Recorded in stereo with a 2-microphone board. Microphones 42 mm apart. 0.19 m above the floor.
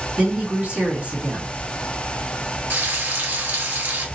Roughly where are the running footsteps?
I don't hear running footsteps.